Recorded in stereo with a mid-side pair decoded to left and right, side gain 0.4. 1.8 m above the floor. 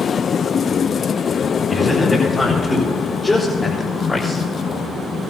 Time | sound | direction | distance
1.7 | a man speaking | 35° left | 6 m